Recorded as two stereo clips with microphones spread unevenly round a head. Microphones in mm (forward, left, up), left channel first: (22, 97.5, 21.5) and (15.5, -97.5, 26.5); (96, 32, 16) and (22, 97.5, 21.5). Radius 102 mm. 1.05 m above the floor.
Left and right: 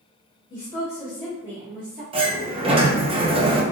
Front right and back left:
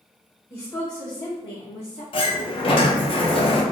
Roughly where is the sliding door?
Ahead right.